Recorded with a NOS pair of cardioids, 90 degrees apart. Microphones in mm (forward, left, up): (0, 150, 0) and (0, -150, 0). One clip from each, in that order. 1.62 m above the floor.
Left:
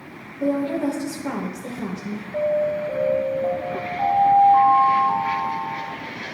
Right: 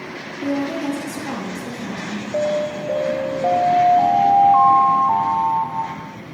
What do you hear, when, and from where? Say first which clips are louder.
0.4 s a woman speaking: left 1 dB; 50° left, 2.0 m
2.3 s an alarm: even; 40° right, 0.9 m